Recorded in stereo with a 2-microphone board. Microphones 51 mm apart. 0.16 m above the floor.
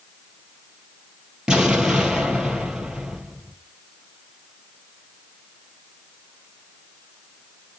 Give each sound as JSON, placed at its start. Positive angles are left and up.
{"t": 1.5, "sound": "an explosion", "side_deg": -15, "distance_m": 2.5}